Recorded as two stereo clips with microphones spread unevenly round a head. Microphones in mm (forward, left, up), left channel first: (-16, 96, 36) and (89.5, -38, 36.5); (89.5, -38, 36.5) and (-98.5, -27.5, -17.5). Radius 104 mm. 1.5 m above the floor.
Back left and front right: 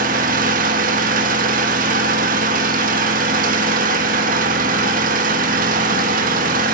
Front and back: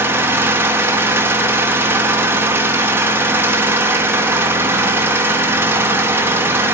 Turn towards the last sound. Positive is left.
turn(degrees=-105)